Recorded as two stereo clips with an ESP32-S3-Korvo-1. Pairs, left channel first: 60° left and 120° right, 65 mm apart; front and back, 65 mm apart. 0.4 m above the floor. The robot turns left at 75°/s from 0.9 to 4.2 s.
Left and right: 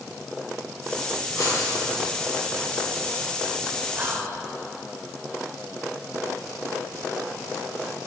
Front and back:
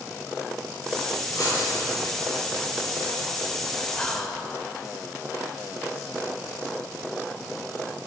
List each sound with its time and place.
1.4 s writing: 30° left, 3.5 m; by 1.7 s 5° left, 3.5 m
4.0 s whispering: 65° right, 1.2 m; by 4.4 s 80° right, 1.2 m